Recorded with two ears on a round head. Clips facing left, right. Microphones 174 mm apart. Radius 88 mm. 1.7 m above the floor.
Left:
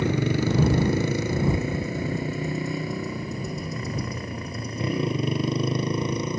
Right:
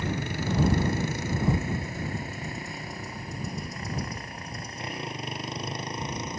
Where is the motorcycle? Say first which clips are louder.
Left 8 dB; 60° left (ahead or behind); by 6.4 s 70° left (ahead or behind).